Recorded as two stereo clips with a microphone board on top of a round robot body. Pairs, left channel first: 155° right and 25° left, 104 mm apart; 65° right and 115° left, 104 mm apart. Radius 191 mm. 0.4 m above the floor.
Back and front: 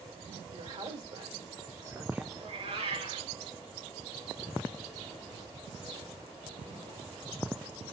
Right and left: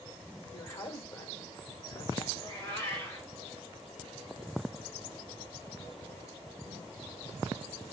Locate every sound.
0.5 s a woman speaking: straight ahead, 2.5 m; by 2.2 s 45° right, 1.3 m
2.4 s a cat meowing: straight ahead, 3 m